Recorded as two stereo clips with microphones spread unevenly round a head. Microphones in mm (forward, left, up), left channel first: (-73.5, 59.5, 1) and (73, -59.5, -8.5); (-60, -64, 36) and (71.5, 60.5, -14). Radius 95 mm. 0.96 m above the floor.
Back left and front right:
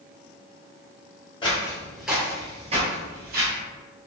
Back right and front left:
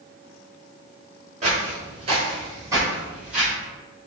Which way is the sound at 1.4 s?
100° left.